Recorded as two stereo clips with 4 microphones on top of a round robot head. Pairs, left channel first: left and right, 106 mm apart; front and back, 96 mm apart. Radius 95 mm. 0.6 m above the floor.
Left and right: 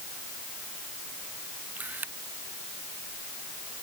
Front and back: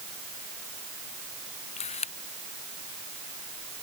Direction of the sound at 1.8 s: 10° right.